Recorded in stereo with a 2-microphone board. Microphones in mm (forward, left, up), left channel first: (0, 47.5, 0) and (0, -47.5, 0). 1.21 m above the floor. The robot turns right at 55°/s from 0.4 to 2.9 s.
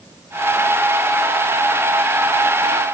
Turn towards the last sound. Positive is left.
No sound to turn to.